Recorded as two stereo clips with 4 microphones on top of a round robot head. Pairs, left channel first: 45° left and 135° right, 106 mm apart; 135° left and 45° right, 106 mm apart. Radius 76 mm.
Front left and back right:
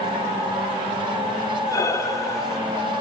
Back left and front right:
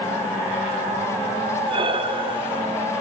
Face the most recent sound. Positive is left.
turn(degrees=-15)